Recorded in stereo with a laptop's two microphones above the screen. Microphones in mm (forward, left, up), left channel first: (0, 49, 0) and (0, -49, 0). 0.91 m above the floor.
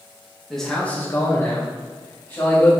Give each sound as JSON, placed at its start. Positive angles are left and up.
{"t": 0.5, "sound": "a man speaking", "side_deg": 0, "distance_m": 1.0}